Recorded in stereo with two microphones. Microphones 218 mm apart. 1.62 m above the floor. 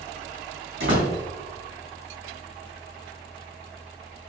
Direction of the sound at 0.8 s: 60° right (ahead or behind).